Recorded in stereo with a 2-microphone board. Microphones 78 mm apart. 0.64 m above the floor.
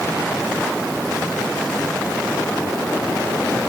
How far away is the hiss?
I don't hear a hiss.